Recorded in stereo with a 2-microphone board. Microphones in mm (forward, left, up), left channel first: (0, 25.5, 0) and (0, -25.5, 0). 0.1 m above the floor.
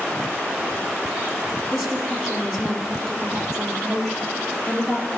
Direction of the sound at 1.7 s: 5° right (ahead or behind).